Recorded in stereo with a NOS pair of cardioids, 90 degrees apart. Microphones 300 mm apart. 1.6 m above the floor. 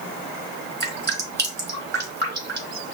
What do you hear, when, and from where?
0.8 s dripping: 35° right, 2.5 m